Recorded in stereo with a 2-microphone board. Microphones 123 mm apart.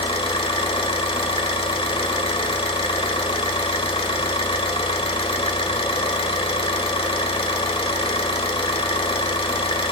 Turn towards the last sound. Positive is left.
turn(degrees=45)  # may be behind; listen again after turning